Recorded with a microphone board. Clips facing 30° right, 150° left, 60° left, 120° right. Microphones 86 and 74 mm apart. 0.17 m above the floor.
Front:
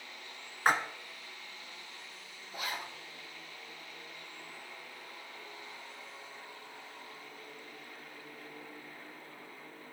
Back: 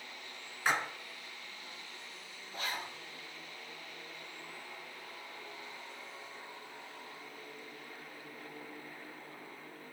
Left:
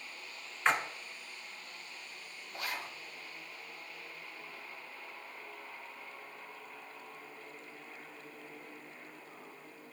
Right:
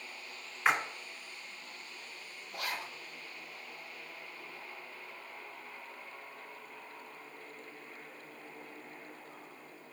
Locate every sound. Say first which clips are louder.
0.7 s a splash: front 4 dB, right 1 dB; 40° right, 0.9 m
2.5 s a zipper: even, right 1 dB; 105° right, 3.5 m